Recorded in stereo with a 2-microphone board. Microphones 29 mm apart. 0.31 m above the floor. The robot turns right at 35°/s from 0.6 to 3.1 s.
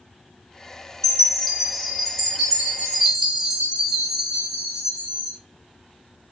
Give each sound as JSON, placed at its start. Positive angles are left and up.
{"t": 1.0, "sound": "a chime", "side_deg": 15, "distance_m": 1.1}